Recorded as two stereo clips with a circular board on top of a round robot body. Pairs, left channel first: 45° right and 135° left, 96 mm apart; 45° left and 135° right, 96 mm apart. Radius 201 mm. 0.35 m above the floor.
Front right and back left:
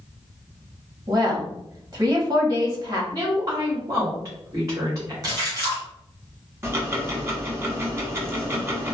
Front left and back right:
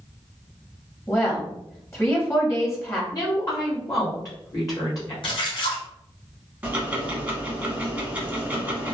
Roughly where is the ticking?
Behind.